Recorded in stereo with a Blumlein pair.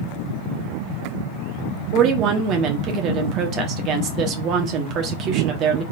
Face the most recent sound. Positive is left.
turn(degrees=-35)